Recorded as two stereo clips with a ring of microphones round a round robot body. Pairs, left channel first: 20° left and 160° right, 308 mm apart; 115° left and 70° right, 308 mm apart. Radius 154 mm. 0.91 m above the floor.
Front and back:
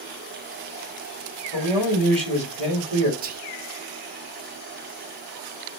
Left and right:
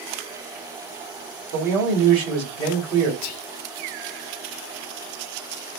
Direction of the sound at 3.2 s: 140° left.